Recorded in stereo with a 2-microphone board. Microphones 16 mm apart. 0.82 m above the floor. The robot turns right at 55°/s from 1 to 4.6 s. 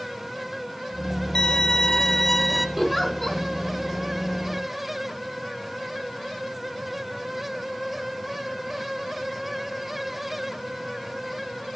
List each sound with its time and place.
1.4 s a violin: 105° left, 1.0 m; by 2.7 s straight behind, 1.0 m
2.8 s a giggle: 10° right (ahead or behind), 2.5 m; by 3.4 s 25° left (ahead or behind), 2.5 m